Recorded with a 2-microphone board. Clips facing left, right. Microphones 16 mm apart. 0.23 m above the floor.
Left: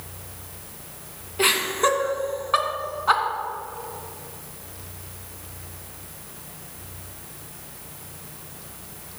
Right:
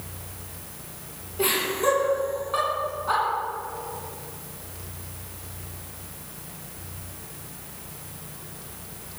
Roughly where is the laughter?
Left.